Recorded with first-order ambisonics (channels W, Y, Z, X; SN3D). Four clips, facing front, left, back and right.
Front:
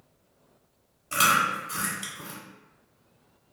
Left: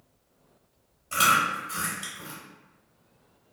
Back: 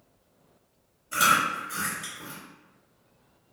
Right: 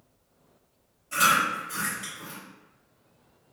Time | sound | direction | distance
1.1 | chewing | 20° left | 1.2 m